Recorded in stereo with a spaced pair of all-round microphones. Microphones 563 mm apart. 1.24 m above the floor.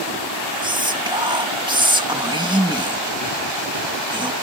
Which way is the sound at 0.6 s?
10° right (ahead or behind).